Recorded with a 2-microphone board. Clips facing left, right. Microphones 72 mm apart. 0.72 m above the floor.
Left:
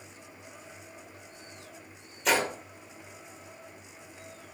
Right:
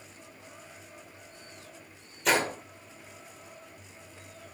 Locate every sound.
2.2 s a gunshot: centre (ahead or behind), 1.6 m